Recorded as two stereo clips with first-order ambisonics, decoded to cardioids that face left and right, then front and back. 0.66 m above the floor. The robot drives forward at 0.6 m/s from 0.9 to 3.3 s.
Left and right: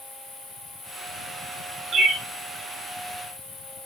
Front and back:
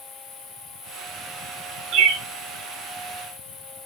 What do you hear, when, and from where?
0.0 s an insect: 50° left, 4 m; by 3.9 s 70° left, 3.5 m
1.9 s a bird: 155° right, 1.9 m